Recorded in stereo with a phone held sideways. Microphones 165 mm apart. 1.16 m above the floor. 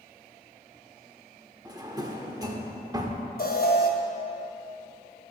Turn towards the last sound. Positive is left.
turn(degrees=65)  # may be behind; listen again after turning